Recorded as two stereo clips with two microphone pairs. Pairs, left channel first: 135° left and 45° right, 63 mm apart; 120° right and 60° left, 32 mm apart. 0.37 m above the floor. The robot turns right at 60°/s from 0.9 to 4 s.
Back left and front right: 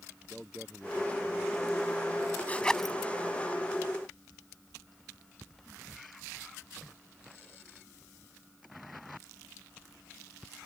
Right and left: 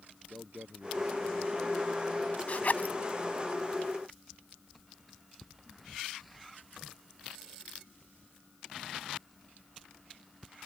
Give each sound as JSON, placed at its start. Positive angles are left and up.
{"t": 0.3, "sound": "a man speaking", "azimuth_deg": 40}
{"t": 2.5, "sound": "a zipper", "azimuth_deg": -155}